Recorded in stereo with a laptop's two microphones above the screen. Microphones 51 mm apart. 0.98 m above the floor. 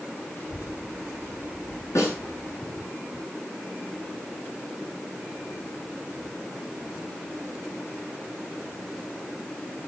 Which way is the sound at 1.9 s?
85° left.